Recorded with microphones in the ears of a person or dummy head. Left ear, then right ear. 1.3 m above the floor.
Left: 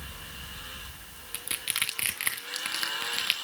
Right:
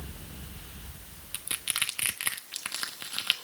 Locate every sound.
1.3 s crushing: centre (ahead or behind), 1.3 m